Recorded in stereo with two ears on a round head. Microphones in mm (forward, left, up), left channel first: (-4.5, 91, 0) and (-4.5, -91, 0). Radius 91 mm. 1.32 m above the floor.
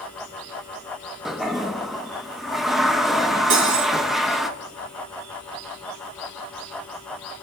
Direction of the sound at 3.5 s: 65° right (ahead or behind).